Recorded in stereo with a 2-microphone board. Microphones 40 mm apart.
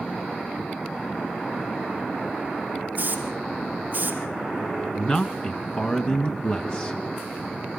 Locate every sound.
3.0 s a hiss: 45° right (ahead or behind), 3 m
5.0 s a man speaking: 25° left (ahead or behind), 1.4 m